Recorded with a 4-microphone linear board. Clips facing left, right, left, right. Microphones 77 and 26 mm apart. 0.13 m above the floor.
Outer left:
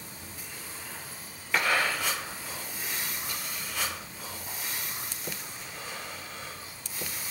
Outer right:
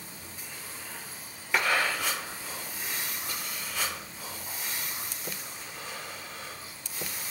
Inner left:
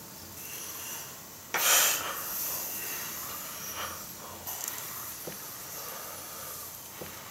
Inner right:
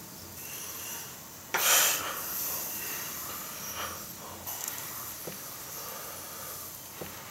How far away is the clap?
About 3 m.